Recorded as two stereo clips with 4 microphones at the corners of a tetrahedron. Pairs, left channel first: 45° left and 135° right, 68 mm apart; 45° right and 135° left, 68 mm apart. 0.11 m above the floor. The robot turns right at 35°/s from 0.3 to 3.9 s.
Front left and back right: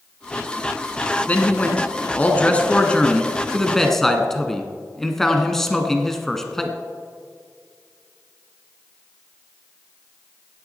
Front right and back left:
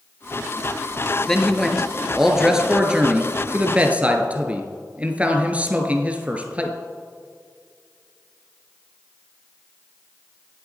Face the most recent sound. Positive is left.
turn(degrees=120)